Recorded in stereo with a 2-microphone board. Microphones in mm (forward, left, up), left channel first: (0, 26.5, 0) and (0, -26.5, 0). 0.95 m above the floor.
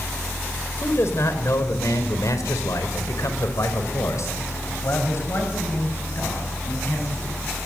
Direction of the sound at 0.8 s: 50° left (ahead or behind).